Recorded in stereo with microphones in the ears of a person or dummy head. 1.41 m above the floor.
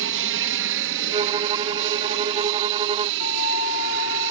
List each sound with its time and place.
0.0 s an aircraft: 60° right (ahead or behind); by 4.3 s 70° right (ahead or behind)
1.1 s a violin: 25° right (ahead or behind)
3.2 s a flute: 85° left